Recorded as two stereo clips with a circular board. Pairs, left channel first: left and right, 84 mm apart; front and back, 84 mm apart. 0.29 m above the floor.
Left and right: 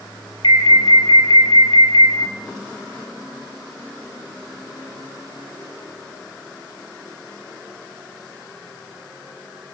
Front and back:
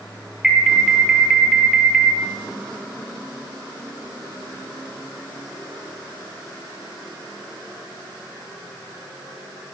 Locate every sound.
0.4 s an alarm: 95° left, 7.5 m